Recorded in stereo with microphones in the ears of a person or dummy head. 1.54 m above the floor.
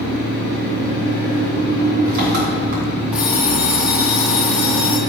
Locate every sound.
0.0 s an engine running: 50° right (ahead or behind), 3 m
3.1 s an alarm clock: centre (ahead or behind), 1.2 m